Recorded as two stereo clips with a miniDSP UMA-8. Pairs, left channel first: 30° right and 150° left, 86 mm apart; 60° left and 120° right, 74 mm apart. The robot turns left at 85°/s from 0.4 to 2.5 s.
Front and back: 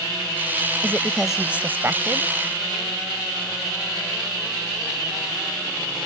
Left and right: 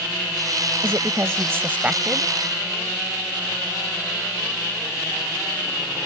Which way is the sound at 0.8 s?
85° right.